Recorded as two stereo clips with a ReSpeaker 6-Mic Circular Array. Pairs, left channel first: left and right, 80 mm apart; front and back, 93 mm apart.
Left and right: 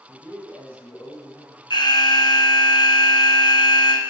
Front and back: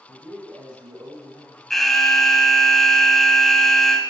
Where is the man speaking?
155° left, 7 m.